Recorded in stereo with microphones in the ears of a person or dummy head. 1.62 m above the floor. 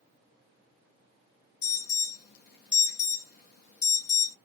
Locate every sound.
1.6 s an alarm: 65° left (ahead or behind), 1.2 m